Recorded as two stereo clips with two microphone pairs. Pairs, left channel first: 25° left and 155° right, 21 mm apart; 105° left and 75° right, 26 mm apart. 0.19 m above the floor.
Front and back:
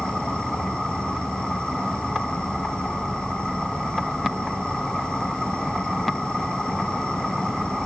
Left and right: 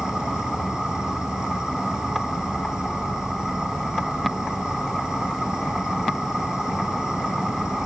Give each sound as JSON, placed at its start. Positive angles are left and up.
{"t": 0.0, "sound": "an insect", "azimuth_deg": -10}